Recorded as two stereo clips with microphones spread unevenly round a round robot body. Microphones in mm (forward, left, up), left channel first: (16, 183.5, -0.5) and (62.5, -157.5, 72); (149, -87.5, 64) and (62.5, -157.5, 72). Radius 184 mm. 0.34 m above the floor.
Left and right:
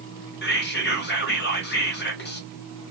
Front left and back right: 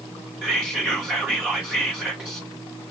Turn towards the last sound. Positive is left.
turn(degrees=140)